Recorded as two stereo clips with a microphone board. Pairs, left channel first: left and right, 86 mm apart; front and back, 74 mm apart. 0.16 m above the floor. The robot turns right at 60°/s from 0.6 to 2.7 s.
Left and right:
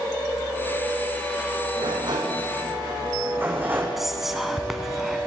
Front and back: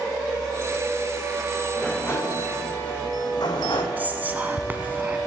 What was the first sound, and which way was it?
A sliding door, 80° right.